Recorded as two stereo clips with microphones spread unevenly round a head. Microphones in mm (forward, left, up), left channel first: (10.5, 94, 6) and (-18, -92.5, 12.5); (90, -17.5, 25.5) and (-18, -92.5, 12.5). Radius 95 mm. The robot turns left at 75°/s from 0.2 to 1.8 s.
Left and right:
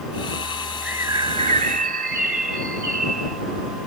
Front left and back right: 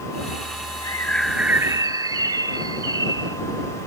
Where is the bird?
15° right; by 3.4 s 90° right.